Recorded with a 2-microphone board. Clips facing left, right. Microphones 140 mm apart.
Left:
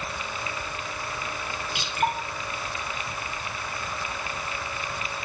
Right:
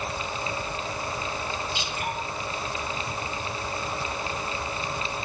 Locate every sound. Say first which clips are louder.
1.8 s dripping: left 5 dB; 65° left (ahead or behind), 9 m